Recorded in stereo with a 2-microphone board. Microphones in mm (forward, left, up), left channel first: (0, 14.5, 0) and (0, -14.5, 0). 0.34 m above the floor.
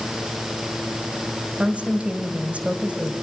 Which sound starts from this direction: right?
A woman speaking, at 1.6 s.